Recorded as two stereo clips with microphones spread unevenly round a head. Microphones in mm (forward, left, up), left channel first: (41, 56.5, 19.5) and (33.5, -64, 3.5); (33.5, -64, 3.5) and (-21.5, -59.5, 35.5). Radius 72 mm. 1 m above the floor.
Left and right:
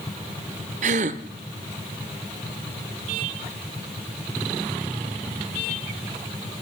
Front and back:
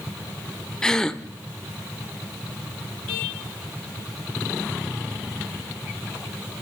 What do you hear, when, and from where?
0.8 s a gasp: 110° right, 0.8 m